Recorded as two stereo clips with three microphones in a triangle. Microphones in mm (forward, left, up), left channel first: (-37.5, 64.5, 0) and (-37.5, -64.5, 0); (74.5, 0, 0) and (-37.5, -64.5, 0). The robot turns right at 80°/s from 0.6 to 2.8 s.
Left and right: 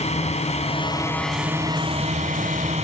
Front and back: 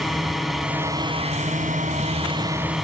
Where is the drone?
120° left; by 2.8 s 60° right.